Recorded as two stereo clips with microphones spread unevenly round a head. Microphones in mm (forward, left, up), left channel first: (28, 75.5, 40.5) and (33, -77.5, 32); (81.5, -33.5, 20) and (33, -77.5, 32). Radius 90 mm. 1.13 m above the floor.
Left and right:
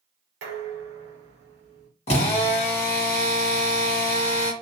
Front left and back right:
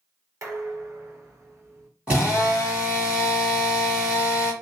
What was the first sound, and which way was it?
Dishes clattering, 100° right.